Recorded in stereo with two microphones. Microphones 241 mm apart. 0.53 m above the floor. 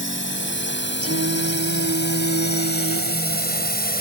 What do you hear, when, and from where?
0.0 s a drone: 50° left (ahead or behind); by 4.0 s 40° left (ahead or behind)
1.0 s singing: 70° right (ahead or behind)